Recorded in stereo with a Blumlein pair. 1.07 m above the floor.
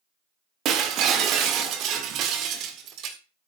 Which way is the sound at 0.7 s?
35° right.